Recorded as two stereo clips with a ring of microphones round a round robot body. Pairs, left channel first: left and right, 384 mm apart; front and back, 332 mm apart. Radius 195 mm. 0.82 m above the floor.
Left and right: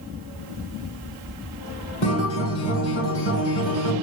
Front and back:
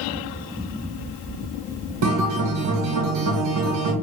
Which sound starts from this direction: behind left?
A guitar, at 2.0 s.